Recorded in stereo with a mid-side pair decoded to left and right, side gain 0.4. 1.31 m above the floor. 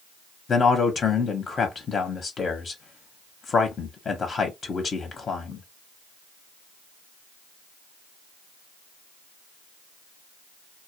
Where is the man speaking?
50° left, 0.8 m.